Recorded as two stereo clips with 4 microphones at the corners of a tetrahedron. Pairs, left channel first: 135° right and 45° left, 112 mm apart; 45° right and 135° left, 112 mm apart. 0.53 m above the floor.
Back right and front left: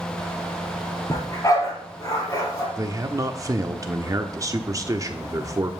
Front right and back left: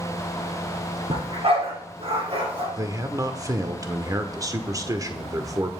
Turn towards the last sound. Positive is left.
turn(degrees=90)